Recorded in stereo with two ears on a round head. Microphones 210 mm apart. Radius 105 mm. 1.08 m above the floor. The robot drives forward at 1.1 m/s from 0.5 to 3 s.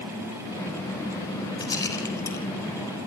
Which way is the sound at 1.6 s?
15° left (ahead or behind).